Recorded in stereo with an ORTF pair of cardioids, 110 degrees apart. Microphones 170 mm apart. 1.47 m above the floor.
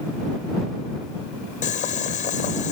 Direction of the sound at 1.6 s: 50° left.